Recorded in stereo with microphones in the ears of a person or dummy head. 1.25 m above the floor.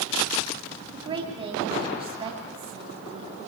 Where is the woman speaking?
25° right (ahead or behind), 2.5 m.